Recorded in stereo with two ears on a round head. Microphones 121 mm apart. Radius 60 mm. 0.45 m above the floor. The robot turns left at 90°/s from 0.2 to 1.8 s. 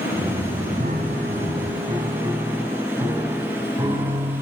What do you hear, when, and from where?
0.8 s a piano: 60° right, 3 m; by 4.4 s 155° right, 3 m